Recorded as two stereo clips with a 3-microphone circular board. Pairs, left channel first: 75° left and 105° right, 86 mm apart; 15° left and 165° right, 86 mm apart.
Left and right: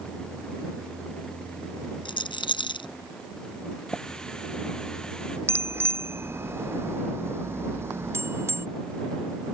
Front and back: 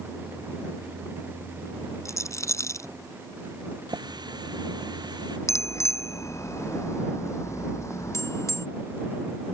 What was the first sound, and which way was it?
A rattle, 70° left.